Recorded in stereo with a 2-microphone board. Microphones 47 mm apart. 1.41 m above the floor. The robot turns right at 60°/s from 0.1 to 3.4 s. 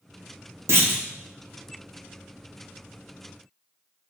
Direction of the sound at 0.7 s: 70° right (ahead or behind).